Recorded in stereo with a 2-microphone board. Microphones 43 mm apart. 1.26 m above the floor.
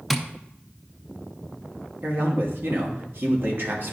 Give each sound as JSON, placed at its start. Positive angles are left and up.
{"t": 0.1, "sound": "tapping", "side_deg": 0, "distance_m": 0.6}
{"t": 2.0, "sound": "a man speaking", "side_deg": -60, "distance_m": 1.5}